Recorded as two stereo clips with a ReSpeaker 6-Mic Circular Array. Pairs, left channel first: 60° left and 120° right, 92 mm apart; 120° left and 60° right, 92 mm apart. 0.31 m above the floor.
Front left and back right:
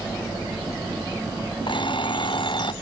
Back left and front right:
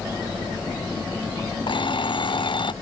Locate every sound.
1.7 s an alarm clock: 90° left